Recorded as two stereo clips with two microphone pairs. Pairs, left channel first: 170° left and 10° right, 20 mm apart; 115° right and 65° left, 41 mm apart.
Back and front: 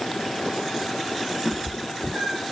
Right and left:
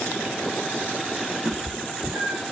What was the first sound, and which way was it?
A cat meowing, 20° left.